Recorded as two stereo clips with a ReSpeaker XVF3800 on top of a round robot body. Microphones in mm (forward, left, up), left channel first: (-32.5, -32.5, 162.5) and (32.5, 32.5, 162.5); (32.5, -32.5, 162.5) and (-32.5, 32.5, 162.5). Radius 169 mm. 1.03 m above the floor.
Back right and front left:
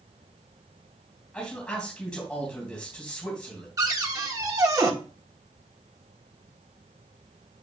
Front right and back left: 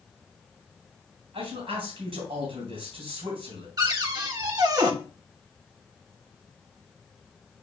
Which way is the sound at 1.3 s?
145° left.